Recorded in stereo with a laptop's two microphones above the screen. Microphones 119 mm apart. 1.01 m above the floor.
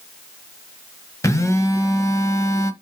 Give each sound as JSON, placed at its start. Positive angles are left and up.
{"t": 1.2, "sound": "a phone buzzing", "side_deg": 25, "distance_m": 1.0}